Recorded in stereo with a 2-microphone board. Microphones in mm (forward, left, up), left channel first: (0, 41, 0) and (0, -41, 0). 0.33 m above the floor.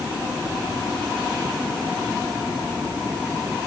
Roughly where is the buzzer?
I don't hear a buzzer.